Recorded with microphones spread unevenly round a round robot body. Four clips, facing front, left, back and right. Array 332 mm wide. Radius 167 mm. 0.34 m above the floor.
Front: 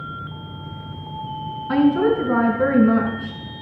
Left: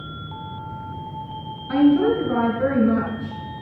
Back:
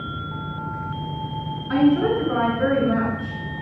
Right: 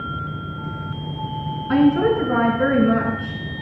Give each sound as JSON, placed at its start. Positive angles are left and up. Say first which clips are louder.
{"t": 1.7, "sound": "a woman speaking", "louder": "even, front 1 dB", "azimuth_deg": 25, "distance_m": 3.5}